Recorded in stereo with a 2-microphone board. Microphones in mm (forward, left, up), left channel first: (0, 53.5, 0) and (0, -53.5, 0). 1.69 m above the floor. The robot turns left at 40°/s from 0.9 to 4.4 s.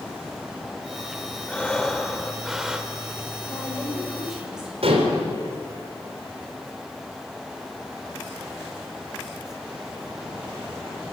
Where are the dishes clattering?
70° right (ahead or behind), 4 m.